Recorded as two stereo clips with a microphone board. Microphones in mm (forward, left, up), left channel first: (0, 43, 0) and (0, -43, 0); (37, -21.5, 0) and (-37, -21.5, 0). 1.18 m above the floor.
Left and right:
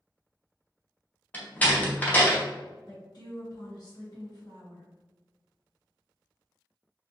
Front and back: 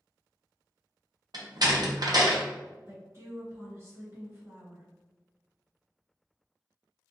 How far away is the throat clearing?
I don't hear throat clearing.